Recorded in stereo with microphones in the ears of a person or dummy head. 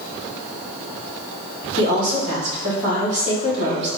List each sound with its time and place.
1.8 s a woman speaking: 40° right (ahead or behind), 1.6 m